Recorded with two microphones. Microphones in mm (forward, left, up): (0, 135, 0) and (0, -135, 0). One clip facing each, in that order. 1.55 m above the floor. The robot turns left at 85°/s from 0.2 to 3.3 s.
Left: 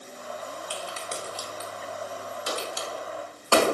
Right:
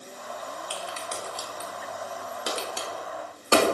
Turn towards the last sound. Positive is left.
turn(degrees=-20)  # may be behind; listen again after turning